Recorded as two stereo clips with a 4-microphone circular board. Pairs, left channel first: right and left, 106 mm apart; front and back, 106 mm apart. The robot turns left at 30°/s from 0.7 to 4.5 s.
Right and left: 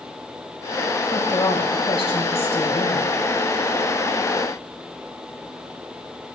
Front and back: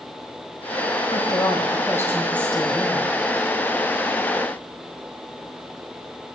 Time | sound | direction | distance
1.1 | a woman speaking | 40° right | 2.5 m